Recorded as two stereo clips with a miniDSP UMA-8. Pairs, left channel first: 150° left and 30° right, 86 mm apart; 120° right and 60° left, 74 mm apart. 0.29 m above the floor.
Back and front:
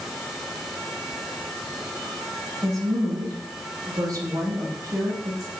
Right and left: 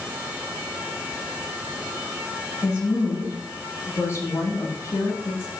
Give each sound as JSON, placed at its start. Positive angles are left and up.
{"t": 2.6, "sound": "a woman speaking", "azimuth_deg": -75, "distance_m": 9.0}